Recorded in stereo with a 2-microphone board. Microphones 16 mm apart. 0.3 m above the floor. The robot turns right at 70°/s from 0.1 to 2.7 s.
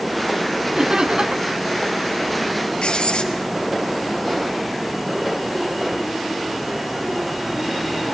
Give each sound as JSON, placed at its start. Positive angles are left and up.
{"t": 0.8, "sound": "laughter", "azimuth_deg": -140, "distance_m": 3.0}
{"t": 2.8, "sound": "writing", "side_deg": 80, "distance_m": 5.0}